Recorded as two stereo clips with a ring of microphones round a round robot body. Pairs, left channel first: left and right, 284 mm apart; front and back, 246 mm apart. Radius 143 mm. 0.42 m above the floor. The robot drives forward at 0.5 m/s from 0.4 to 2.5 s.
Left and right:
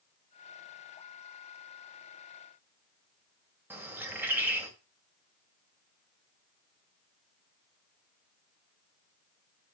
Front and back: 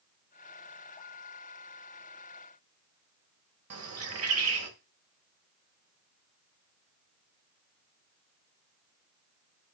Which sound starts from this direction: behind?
A bird, at 3.7 s.